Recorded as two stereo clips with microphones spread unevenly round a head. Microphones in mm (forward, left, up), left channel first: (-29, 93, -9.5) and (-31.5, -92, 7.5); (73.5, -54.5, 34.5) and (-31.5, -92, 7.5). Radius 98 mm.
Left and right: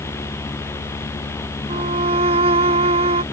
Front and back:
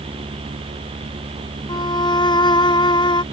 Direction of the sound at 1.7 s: 30° right.